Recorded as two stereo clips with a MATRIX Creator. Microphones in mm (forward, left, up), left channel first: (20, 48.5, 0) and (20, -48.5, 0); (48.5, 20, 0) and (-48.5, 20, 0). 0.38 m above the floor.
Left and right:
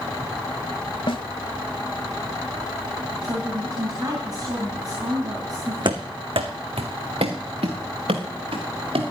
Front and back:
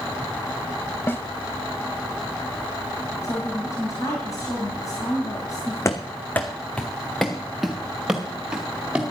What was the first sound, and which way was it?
A snare drum, 65° left.